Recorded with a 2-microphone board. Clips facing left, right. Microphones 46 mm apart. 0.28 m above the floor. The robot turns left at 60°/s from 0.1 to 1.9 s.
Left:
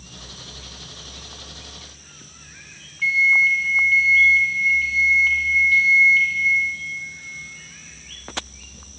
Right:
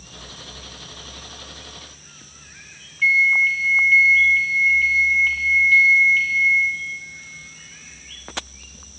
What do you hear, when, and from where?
3.0 s a microwave: 20° right (ahead or behind), 1.2 m